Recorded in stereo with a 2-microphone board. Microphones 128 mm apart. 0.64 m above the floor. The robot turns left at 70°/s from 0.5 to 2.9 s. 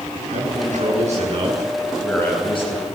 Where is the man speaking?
75° right, 8.5 m; by 2.9 s 120° left, 8.5 m.